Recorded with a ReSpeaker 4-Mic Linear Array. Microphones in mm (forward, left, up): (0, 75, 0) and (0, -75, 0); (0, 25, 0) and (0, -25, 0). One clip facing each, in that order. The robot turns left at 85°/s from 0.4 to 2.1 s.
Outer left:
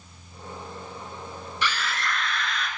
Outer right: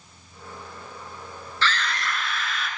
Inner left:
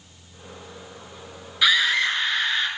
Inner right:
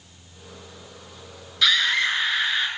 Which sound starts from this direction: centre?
A scream, at 1.6 s.